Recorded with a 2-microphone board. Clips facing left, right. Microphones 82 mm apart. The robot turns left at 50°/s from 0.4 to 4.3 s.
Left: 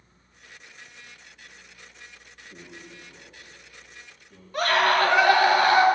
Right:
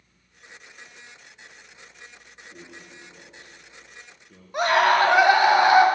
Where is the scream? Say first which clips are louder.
Right 3 dB; 20° right (ahead or behind), 1.0 m.